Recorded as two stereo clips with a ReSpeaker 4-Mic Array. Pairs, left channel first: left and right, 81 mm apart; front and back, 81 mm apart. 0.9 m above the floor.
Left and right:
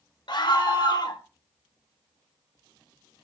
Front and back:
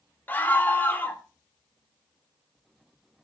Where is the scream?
65° left, 2.5 m.